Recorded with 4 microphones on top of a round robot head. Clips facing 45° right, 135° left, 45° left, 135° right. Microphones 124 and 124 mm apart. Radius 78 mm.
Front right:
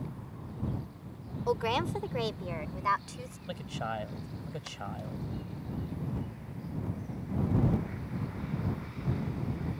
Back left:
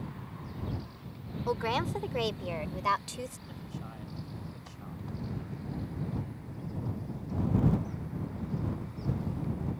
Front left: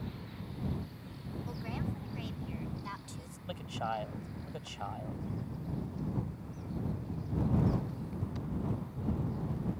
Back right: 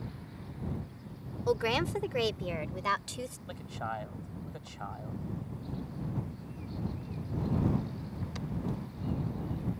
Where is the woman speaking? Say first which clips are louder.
Front right 1 dB, back right 12 dB; 125° right; by 3.4 s 165° right.